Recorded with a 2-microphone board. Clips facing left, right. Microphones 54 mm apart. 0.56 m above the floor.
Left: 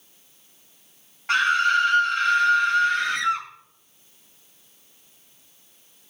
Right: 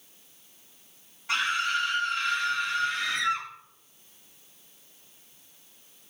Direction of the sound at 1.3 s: 55° left (ahead or behind).